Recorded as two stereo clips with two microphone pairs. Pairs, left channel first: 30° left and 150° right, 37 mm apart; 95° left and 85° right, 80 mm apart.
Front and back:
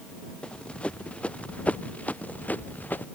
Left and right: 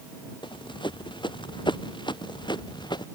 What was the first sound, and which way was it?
Running footsteps, 95° left.